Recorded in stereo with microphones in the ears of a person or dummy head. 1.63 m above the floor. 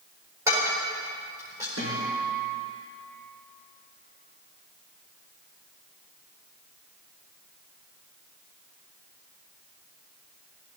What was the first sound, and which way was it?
Dishes clattering, 20° right (ahead or behind).